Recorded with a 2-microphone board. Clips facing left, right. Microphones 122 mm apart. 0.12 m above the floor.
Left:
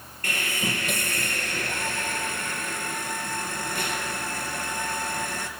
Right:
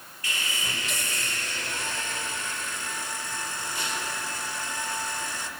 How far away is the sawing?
About 2.5 m.